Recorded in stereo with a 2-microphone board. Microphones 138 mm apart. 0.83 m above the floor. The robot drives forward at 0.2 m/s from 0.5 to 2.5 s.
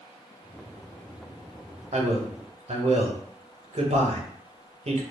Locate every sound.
1.9 s a man speaking: 55° right (ahead or behind), 0.6 m